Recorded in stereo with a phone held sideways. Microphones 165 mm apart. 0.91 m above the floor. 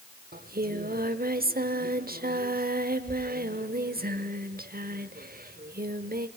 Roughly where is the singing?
Right.